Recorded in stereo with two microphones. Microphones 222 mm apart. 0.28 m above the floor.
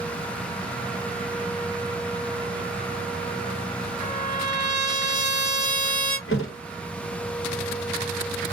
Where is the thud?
70° left (ahead or behind), 0.9 m.